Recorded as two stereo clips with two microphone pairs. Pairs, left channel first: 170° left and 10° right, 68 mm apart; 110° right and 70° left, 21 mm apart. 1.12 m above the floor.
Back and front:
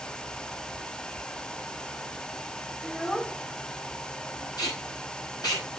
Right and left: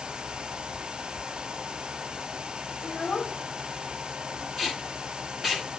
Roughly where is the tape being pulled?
Behind left.